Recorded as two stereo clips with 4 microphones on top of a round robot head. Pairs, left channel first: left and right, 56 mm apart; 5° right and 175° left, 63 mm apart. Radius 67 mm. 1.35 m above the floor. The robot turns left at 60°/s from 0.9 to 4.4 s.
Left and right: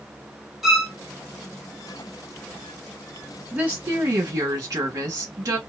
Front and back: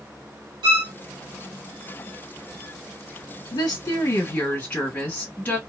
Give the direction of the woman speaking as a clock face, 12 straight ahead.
1 o'clock.